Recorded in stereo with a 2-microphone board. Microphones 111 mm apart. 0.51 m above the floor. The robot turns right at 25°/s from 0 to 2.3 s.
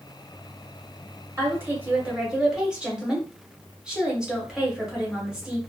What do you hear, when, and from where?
1.4 s a woman speaking: 25° right (ahead or behind), 1.2 m; by 5.6 s 10° right (ahead or behind), 1.2 m